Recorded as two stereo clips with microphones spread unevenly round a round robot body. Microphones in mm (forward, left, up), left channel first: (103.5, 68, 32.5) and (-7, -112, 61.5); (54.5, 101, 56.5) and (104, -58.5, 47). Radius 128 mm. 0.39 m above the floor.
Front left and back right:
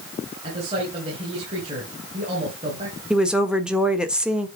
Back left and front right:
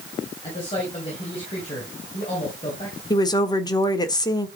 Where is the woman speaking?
140° left, 1.4 m.